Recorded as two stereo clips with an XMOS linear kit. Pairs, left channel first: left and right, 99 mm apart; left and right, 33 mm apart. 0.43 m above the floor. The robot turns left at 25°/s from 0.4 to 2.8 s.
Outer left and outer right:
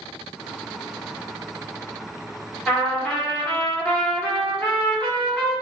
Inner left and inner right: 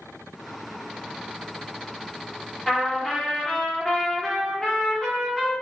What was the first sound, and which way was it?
A trumpet, 10° left (ahead or behind).